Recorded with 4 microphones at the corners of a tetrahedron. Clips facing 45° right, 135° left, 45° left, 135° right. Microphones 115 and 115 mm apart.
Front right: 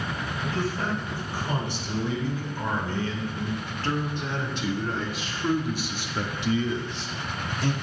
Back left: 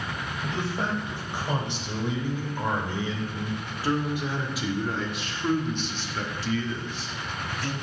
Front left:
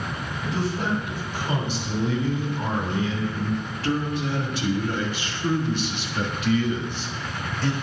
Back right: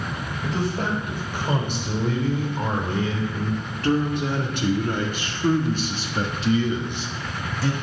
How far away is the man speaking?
About 3.5 m.